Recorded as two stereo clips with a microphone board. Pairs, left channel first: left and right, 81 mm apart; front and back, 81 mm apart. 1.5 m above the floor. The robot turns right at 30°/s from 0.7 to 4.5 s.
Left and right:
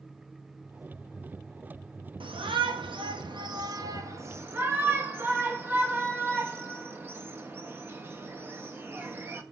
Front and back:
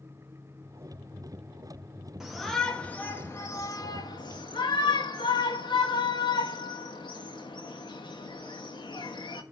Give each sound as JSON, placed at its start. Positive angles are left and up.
{"t": 2.2, "sound": "a shout", "azimuth_deg": -95, "distance_m": 1.2}